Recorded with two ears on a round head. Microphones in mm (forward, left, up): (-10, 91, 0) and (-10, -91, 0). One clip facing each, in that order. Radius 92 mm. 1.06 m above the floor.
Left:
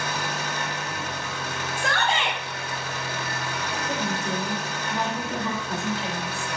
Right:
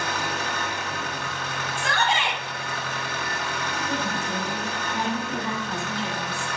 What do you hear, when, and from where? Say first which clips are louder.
0.0 s an engine running: right 1 dB; 40° left (ahead or behind), 3 m
1.8 s a shout: right 1 dB; 45° left (ahead or behind), 5 m
3.9 s a woman speaking: left 2 dB; 65° left (ahead or behind), 4 m